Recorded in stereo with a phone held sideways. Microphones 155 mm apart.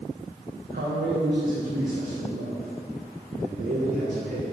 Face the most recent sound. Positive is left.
turn(degrees=-75)  # may be behind; listen again after turning